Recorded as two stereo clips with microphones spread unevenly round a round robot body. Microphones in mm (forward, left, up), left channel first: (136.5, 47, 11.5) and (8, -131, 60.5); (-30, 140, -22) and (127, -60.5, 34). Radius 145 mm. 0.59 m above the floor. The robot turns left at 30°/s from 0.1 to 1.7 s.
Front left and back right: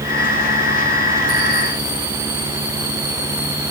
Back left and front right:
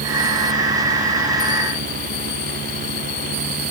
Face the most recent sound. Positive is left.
No sound to turn to.